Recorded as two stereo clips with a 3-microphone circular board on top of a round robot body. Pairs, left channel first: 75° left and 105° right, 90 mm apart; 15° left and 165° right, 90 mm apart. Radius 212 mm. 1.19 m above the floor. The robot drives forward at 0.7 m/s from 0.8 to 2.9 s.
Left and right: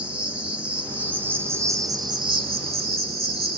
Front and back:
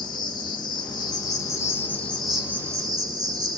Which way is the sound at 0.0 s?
25° right.